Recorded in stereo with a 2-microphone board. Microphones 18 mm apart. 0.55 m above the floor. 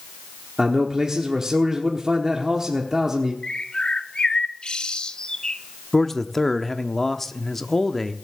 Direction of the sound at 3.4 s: 50° left (ahead or behind).